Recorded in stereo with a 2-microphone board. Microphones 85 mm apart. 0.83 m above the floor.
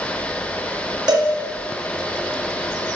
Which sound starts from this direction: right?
A cowbell, at 1.1 s.